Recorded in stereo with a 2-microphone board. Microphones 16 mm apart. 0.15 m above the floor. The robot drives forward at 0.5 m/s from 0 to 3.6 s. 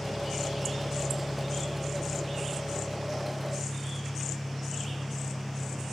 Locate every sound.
0.0 s an engine running: 65° left (ahead or behind), 5.5 m; by 5.9 s 50° left (ahead or behind), 6 m